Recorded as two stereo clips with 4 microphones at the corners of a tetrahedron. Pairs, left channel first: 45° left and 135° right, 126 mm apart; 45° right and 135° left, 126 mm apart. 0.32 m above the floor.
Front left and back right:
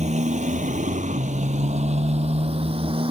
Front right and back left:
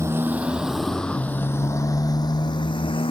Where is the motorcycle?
155° right; by 3.1 s 90° right.